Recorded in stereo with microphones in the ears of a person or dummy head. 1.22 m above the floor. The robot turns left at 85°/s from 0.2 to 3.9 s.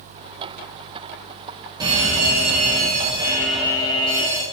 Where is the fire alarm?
30° right, 1.7 m; by 4.4 s 150° left, 1.7 m.